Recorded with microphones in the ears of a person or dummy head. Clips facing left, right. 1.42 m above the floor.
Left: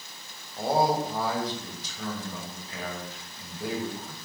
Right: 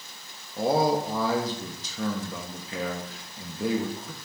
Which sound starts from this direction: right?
A man speaking, at 0.6 s.